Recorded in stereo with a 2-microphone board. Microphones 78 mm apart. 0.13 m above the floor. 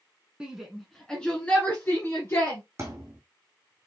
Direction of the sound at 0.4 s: 10° right (ahead or behind).